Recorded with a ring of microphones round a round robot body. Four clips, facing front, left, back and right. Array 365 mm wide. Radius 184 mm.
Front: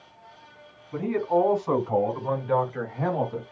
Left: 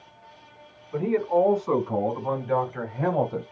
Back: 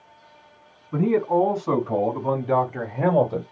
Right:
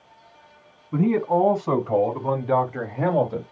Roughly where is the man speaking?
Behind right.